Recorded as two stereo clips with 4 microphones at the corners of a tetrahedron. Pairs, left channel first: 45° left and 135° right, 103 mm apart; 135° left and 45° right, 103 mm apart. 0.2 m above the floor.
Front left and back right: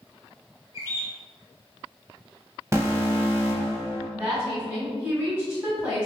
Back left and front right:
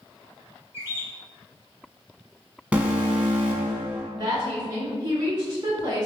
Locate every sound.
0.7 s a bird: 100° right, 1.8 m
2.7 s an alarm: 105° right, 0.8 m
4.1 s a woman speaking: 70° right, 1.7 m